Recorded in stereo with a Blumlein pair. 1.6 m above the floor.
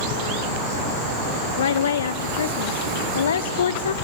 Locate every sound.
1.6 s a woman speaking: 65° left, 0.7 m